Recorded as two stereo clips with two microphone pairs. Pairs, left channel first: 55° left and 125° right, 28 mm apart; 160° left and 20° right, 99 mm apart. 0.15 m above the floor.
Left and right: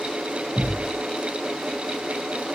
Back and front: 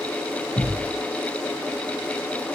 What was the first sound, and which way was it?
A thud, 165° right.